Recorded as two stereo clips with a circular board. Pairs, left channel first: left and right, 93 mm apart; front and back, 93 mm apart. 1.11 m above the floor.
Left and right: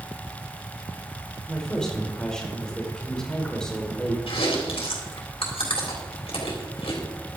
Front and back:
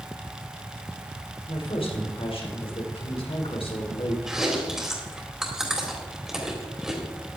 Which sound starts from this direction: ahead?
A woman speaking, at 1.5 s.